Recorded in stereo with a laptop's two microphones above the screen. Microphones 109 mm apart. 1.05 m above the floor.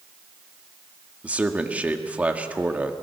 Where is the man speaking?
15° right (ahead or behind), 1.6 m.